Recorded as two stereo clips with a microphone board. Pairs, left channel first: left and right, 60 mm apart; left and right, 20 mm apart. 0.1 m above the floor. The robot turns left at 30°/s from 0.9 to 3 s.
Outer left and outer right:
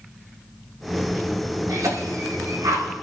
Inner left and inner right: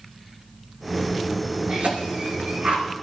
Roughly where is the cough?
Right.